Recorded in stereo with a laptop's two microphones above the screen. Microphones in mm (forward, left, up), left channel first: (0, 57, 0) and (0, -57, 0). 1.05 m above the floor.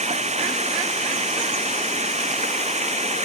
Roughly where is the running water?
Right.